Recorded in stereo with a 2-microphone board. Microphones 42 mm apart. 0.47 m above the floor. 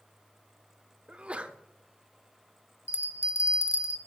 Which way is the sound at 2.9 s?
85° left.